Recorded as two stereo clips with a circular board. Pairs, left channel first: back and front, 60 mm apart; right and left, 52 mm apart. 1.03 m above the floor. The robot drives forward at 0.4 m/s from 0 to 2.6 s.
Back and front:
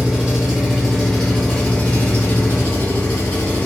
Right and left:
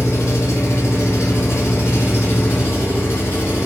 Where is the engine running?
75° right, 1.1 m; by 3.7 s 130° right, 1.3 m.